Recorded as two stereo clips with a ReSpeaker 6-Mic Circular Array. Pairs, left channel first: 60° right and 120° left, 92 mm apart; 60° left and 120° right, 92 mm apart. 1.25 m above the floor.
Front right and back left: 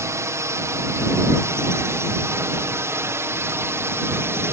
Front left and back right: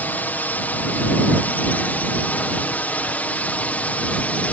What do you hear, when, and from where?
0.0 s a drone: 115° left